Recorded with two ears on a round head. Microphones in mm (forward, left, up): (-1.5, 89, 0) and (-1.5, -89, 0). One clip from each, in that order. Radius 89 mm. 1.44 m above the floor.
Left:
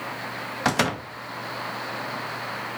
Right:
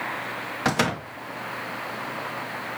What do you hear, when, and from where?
0.7 s a door slam: 10° left (ahead or behind), 1.7 m